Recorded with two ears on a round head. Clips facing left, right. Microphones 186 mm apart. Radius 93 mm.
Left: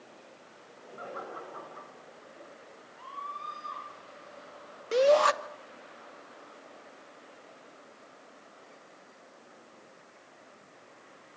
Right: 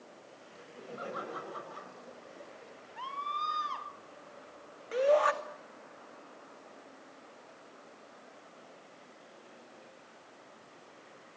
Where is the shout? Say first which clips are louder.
Left 4 dB; 55° left (ahead or behind), 2.5 m.